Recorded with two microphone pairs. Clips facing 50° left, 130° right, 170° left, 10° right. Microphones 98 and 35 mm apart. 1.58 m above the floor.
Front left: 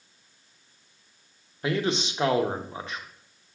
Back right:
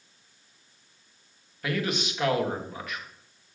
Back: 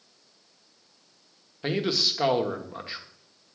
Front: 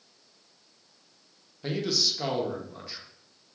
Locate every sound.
1.6 s a man speaking: 110° left, 1.1 m